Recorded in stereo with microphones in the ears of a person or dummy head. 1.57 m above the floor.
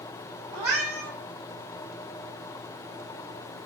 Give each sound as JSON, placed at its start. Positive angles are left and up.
{"t": 0.5, "sound": "a cat meowing", "side_deg": -10, "distance_m": 1.1}